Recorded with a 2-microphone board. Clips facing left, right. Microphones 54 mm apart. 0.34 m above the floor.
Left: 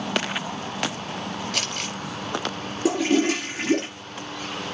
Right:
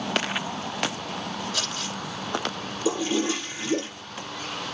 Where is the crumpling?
75° left (ahead or behind), 5 m.